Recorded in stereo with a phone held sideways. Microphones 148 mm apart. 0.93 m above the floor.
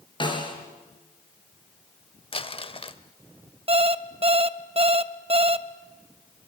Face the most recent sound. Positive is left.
turn(degrees=-40)  # may be behind; listen again after turning